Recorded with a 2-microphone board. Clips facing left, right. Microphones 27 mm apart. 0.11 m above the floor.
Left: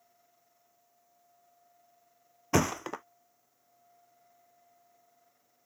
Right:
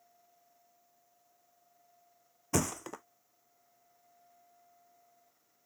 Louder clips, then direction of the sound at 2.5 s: Left 5 dB; 30° left (ahead or behind).